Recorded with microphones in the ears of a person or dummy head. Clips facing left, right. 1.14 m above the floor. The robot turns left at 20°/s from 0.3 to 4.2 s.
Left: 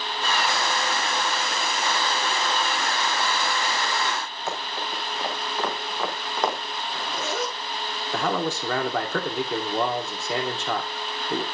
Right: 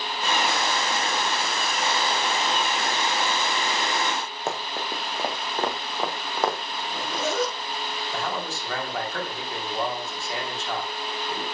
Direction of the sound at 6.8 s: 45° right (ahead or behind).